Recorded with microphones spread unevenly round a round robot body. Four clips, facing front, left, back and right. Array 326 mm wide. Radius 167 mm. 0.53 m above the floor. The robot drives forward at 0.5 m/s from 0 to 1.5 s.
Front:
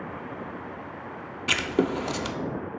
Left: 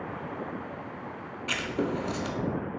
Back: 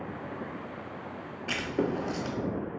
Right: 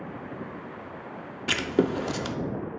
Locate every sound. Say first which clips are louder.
1.5 s writing: right 5 dB, front 5 dB; 50° right, 0.5 m